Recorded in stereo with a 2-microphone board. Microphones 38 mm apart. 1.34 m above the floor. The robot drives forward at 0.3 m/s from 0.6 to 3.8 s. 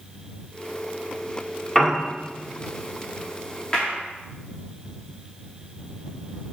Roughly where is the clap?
Left.